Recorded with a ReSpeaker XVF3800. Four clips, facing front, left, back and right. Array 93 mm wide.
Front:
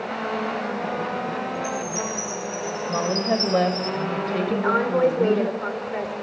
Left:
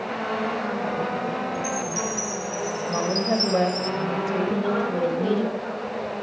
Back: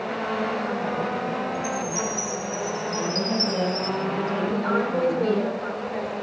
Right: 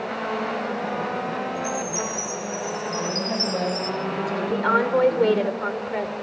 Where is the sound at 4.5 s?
65° right, 3.5 m.